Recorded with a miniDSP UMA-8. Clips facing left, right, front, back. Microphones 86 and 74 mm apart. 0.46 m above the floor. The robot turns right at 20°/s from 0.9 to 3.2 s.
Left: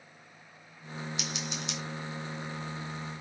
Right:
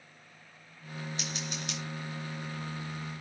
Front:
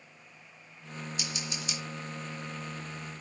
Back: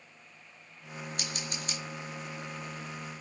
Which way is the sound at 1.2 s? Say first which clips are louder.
Left 1 dB, even; 145° right.